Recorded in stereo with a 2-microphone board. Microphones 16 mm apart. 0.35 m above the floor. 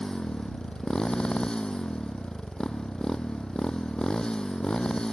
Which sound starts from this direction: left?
A motorcycle, at 0.0 s.